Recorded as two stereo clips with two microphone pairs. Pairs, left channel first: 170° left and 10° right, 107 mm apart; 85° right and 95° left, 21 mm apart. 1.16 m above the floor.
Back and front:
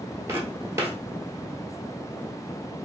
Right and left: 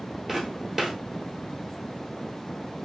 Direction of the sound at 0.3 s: 20° left.